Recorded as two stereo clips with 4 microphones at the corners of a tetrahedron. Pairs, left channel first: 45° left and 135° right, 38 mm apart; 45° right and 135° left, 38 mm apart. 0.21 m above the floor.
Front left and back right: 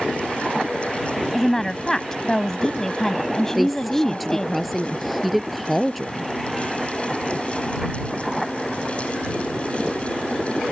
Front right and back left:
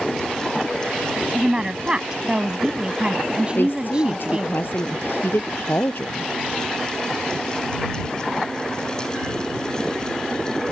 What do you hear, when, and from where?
1.3 s a woman speaking: 105° left
3.5 s a woman speaking: 45° right